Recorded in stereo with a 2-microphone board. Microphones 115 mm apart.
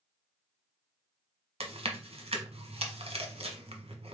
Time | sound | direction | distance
1.6 | chewing | 60° right (ahead or behind) | 1.0 m